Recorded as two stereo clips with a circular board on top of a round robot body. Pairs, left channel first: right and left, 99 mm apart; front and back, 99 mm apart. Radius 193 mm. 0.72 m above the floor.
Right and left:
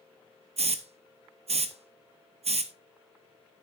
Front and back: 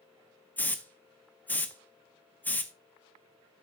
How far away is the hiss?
About 0.8 m.